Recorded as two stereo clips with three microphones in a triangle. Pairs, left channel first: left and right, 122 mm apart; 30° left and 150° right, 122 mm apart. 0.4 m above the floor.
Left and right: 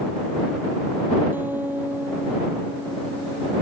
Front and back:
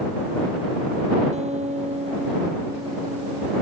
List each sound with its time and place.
1.3 s a guitar: 165° right